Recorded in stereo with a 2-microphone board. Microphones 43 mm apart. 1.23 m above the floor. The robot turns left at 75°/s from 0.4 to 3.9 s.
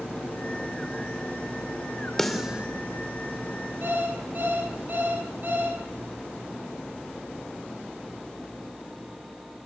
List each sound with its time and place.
2.2 s a snare drum: 5° left (ahead or behind), 2.5 m; by 2.7 s 30° right (ahead or behind), 2.5 m
3.8 s an alarm clock: 45° right (ahead or behind), 10 m; by 5.8 s 40° right (ahead or behind), 10 m